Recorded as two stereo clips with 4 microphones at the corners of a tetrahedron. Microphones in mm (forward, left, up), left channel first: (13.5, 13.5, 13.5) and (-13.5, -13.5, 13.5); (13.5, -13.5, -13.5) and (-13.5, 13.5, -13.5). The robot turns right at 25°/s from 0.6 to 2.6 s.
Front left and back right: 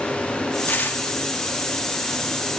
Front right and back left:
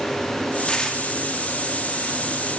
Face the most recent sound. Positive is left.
turn(degrees=70)